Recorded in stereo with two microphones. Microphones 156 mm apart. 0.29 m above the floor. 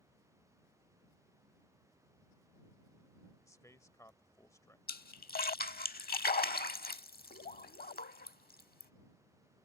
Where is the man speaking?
20° left (ahead or behind).